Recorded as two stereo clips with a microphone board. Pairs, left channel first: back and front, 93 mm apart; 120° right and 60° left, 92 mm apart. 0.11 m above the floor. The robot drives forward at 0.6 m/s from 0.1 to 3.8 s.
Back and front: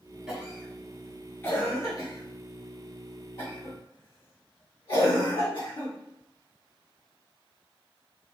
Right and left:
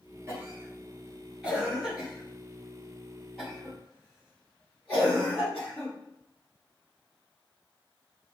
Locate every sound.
0.3 s a cough: 75° left, 1.2 m; by 5.9 s 160° left, 2.5 m